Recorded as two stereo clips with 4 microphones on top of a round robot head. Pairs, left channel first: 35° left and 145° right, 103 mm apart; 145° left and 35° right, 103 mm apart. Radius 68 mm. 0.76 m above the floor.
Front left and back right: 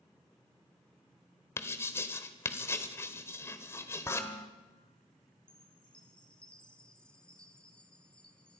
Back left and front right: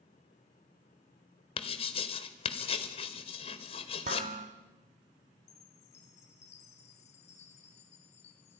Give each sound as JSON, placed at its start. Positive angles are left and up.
{"t": 1.6, "sound": "writing", "azimuth_deg": 105, "distance_m": 1.4}
{"t": 4.0, "sound": "dishes clattering", "azimuth_deg": -30, "distance_m": 1.8}
{"t": 5.5, "sound": "a chime", "azimuth_deg": 120, "distance_m": 1.8}